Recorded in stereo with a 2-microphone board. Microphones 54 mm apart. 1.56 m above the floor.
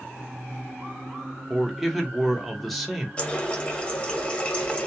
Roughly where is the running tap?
Left.